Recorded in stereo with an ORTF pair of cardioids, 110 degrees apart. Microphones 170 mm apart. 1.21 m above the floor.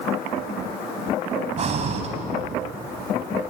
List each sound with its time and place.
1.6 s breathing: 40° right, 3.5 m